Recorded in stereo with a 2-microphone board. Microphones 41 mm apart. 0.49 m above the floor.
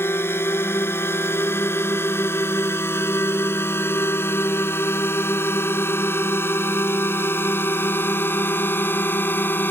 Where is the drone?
75° left (ahead or behind); by 9.7 s 55° left (ahead or behind).